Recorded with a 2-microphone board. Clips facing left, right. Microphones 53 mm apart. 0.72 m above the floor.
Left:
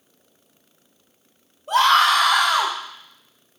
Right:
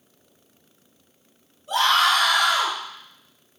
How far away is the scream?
About 2.5 m.